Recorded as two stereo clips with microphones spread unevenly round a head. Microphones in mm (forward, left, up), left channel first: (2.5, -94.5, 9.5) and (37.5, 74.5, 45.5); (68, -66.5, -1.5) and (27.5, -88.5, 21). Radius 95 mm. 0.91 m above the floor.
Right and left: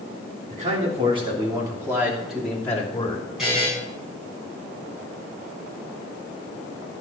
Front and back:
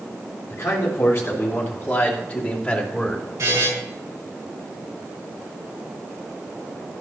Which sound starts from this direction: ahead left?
A man speaking, at 0.5 s.